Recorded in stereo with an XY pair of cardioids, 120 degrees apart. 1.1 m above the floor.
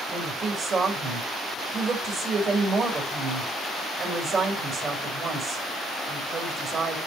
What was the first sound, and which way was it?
A woman speaking, 30° right.